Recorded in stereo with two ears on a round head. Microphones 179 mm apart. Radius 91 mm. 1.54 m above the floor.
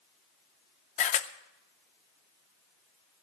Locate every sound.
1.0 s a camera shutter: 35° left (ahead or behind), 0.7 m